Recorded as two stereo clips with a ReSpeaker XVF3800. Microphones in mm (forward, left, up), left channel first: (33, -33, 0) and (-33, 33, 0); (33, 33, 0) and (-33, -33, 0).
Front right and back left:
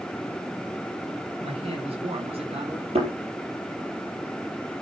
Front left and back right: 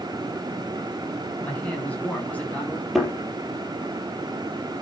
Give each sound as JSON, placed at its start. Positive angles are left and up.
{"t": 1.4, "sound": "a man speaking", "azimuth_deg": 120, "distance_m": 7.5}
{"t": 3.0, "sound": "a thud", "azimuth_deg": 135, "distance_m": 5.0}